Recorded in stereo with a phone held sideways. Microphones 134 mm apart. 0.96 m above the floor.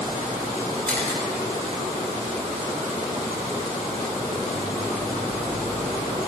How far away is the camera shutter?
About 2.5 m.